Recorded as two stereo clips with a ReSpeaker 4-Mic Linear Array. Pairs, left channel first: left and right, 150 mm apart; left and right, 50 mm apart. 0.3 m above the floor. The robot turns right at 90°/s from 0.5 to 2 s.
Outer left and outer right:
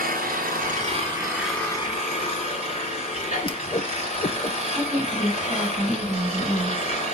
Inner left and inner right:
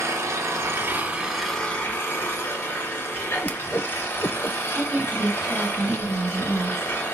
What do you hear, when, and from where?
0.0 s an engine running: 90° right, 3 m; by 7.2 s 45° left, 3 m
3.4 s a whoosh: 35° left (ahead or behind), 0.5 m
4.8 s a woman speaking: 5° right (ahead or behind), 2.5 m